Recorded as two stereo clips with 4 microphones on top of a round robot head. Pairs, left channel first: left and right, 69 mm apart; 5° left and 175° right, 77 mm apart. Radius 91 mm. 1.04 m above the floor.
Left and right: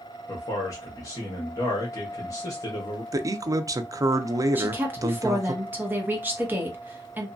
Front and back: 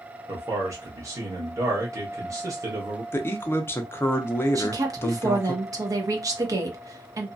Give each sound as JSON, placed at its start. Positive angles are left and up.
{"t": 0.3, "sound": "a man speaking", "azimuth_deg": 135, "distance_m": 1.0}
{"t": 3.1, "sound": "a man speaking", "azimuth_deg": -55, "distance_m": 0.6}
{"t": 4.5, "sound": "a woman speaking", "azimuth_deg": -150, "distance_m": 1.0}